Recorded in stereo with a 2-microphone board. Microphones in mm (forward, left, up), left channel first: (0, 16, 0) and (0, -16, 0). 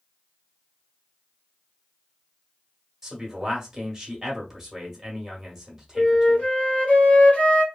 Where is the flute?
45° left (ahead or behind), 1.5 m.